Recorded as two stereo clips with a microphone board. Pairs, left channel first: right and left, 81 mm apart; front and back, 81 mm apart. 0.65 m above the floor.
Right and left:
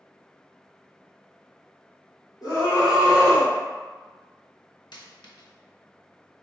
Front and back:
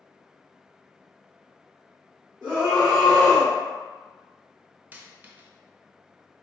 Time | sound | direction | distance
2.4 | a scream | 70° right | 2.0 m
4.9 | a dropped coin | 115° right | 0.6 m